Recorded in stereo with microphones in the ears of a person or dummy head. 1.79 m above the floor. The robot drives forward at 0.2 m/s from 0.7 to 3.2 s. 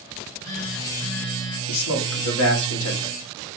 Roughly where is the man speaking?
Left.